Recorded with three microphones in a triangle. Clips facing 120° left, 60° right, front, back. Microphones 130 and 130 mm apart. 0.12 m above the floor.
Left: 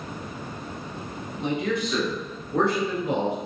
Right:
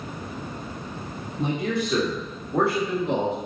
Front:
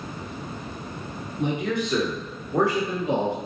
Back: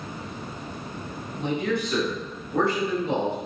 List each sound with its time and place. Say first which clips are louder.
1.4 s a man speaking: even, front 1 dB; 80° right, 1.9 m; by 3.4 s 60° left, 1.6 m